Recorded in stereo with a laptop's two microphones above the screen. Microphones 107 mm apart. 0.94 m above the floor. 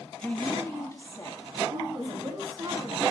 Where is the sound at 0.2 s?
10° left (ahead or behind), 1.2 m; by 2.4 s 45° left (ahead or behind), 3 m.